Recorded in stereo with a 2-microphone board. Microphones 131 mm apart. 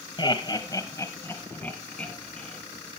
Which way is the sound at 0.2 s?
35° left (ahead or behind).